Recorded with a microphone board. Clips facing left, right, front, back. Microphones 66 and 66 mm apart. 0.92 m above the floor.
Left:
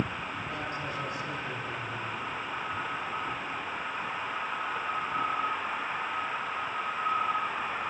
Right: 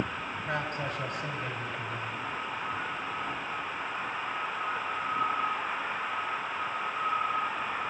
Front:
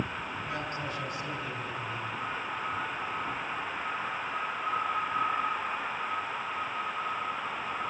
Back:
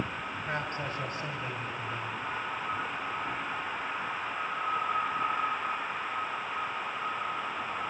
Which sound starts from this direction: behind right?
A man speaking, at 0.5 s.